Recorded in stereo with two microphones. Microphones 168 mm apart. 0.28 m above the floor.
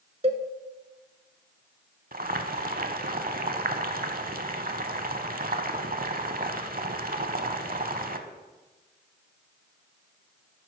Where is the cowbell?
40° right (ahead or behind), 0.8 m.